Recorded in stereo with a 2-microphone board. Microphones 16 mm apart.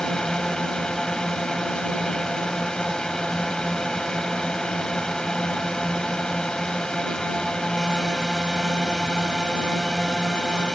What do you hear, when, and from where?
0.0 s a drone: 55° left (ahead or behind)